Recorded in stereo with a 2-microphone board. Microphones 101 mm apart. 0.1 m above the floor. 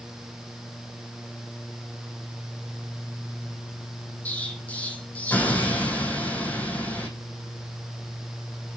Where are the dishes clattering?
No dishes clattering in this recording.